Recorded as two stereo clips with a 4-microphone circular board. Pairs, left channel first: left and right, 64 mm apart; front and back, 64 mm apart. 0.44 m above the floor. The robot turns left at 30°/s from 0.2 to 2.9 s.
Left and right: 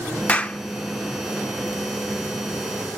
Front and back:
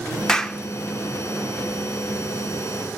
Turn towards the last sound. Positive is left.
turn(degrees=-10)